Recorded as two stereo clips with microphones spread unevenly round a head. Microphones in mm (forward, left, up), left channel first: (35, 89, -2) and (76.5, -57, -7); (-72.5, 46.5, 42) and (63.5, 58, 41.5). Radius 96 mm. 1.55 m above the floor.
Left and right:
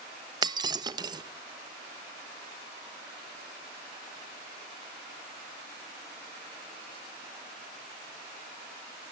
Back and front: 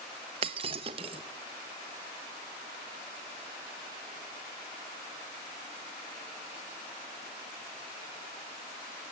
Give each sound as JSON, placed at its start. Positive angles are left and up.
{"t": 0.4, "sound": "breaking glass", "azimuth_deg": -30, "distance_m": 0.9}